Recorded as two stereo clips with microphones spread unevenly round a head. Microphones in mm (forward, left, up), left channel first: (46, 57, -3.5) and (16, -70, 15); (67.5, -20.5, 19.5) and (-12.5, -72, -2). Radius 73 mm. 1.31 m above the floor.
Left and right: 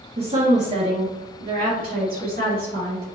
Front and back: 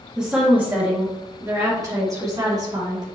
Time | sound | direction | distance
0.2 | a woman speaking | 60° right | 1.6 m